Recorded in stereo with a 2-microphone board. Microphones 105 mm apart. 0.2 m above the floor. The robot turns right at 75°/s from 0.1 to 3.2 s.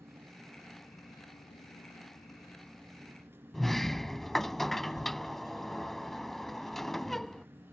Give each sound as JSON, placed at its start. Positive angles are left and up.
{"t": 0.0, "sound": "an insect", "azimuth_deg": -30}
{"t": 3.5, "sound": "a sliding door", "side_deg": 5}